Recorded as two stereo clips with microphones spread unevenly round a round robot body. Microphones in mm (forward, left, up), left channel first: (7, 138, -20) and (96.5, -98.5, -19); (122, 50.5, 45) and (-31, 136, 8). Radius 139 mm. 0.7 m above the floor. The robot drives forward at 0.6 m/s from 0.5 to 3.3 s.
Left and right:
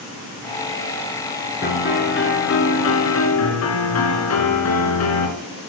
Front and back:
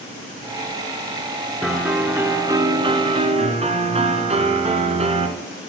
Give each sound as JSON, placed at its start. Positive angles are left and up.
{"t": 1.6, "sound": "a piano", "azimuth_deg": 60, "distance_m": 1.8}